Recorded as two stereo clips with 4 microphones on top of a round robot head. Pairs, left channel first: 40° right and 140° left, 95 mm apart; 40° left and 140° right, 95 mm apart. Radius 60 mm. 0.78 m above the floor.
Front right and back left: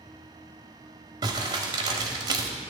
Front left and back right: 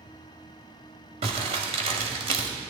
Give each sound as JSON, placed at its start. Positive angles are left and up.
{"t": 1.2, "sound": "crumpling", "azimuth_deg": -170, "distance_m": 1.4}